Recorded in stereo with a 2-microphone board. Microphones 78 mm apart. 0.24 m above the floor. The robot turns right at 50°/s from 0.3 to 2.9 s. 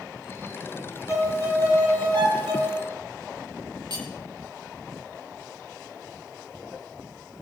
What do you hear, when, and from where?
1.1 s a violin: 150° right, 5.5 m; by 2.9 s 60° right, 5.5 m
3.9 s cutlery clinking: 65° right (ahead or behind), 4.5 m